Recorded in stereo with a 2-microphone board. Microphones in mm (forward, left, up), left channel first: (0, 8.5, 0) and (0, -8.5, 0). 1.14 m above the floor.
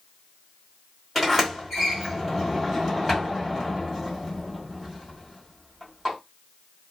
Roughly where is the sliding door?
Centre.